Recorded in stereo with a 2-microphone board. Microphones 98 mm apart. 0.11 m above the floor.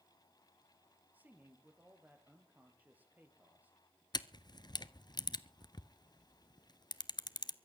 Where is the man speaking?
15° right (ahead or behind), 3 m.